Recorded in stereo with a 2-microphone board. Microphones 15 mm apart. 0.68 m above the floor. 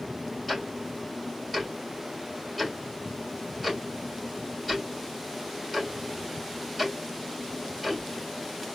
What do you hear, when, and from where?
0.5 s ticking: 10° right (ahead or behind), 3 m